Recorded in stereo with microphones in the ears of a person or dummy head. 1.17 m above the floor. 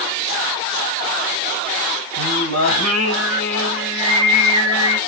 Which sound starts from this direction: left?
Singing, at 2.2 s.